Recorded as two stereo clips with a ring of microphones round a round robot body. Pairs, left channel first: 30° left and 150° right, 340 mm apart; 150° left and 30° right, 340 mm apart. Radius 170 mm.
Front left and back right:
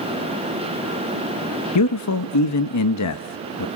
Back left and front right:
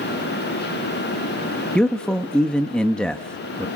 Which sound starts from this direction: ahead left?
A man speaking, at 1.8 s.